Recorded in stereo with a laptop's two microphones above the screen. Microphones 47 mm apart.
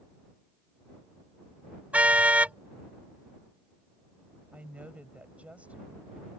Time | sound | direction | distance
1.9 | a car horn | 30° right (ahead or behind) | ?
4.5 | a woman speaking | 35° right (ahead or behind) | ?